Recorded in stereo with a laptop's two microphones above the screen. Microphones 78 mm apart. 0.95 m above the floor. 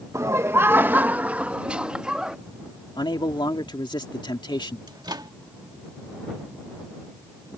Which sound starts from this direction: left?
A man speaking, at 3.0 s.